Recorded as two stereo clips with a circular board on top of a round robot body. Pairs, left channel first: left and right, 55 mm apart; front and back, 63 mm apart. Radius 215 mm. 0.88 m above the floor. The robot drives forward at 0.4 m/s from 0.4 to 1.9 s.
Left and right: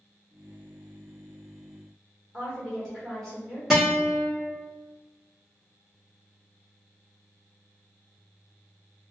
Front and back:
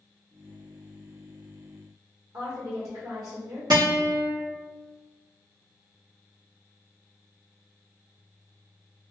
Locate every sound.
2.3 s a woman speaking: 170° left, 1.6 m
3.7 s a guitar: 170° right, 1.2 m